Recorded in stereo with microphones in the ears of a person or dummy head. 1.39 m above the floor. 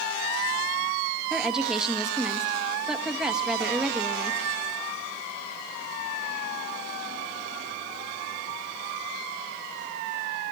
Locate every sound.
1.3 s a woman speaking: centre (ahead or behind), 1.7 m